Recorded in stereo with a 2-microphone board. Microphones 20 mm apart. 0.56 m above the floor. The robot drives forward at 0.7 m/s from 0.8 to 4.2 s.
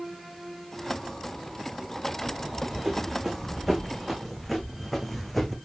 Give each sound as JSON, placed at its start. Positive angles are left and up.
{"t": 2.4, "sound": "running footsteps", "side_deg": -25, "distance_m": 3.0}